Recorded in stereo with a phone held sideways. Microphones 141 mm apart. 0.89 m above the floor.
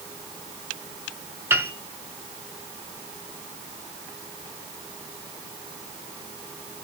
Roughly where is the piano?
Centre.